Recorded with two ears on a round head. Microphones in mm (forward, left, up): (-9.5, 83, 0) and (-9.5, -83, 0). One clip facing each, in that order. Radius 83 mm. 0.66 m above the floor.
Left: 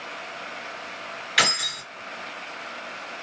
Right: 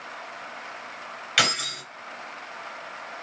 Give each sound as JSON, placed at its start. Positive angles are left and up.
{"t": 1.4, "sound": "keys jangling", "side_deg": -35, "distance_m": 2.5}